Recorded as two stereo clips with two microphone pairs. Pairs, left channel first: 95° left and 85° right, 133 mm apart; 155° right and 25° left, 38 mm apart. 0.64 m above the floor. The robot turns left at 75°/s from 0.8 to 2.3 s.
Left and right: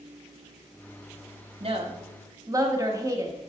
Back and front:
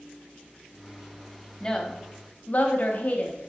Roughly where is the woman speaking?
Right.